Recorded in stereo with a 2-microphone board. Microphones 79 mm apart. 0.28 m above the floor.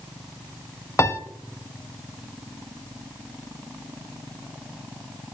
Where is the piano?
35° left (ahead or behind), 0.6 m.